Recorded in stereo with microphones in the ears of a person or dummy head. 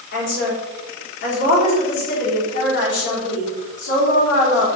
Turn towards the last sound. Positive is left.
turn(degrees=60)  # may be behind; listen again after turning